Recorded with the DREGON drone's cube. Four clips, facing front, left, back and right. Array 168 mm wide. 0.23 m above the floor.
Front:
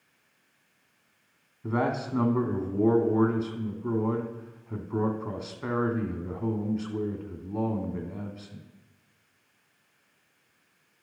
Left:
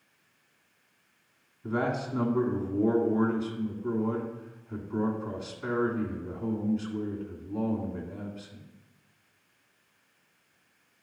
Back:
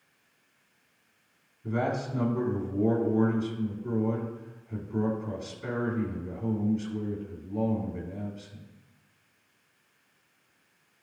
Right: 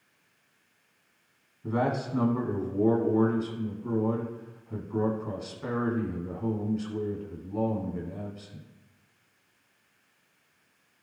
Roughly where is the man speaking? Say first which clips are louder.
Right 1 dB, front 2 dB; ahead.